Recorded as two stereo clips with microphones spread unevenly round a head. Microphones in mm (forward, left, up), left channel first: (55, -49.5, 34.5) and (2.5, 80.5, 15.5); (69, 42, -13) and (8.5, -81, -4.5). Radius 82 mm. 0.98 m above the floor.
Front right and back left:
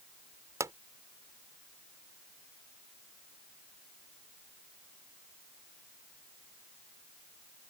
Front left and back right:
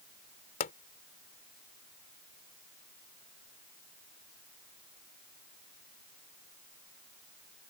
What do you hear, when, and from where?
0.6 s a pop: 40° left